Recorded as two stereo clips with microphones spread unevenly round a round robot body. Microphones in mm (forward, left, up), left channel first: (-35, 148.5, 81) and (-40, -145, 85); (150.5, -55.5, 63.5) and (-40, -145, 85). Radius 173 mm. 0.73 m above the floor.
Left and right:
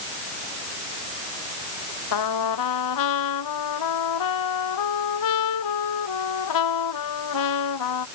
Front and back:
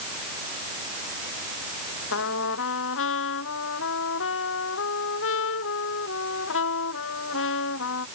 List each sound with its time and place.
2.1 s a trumpet: 65° left